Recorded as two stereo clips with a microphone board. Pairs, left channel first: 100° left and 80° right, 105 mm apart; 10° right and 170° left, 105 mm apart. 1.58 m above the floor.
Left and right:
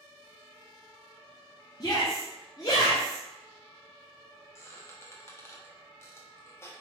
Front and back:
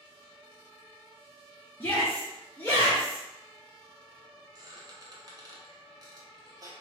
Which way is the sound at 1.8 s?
55° left.